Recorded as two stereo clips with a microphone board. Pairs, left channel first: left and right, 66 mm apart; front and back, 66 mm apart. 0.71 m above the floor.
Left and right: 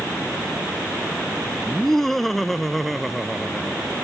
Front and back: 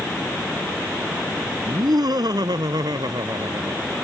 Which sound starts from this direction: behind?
Laughter, at 1.7 s.